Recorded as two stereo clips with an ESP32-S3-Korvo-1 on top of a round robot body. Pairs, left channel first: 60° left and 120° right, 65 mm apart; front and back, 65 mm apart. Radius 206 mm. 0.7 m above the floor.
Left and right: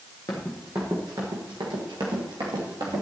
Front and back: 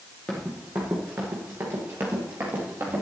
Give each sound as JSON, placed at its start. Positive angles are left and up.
{"t": 0.3, "sound": "running footsteps", "azimuth_deg": 75, "distance_m": 0.6}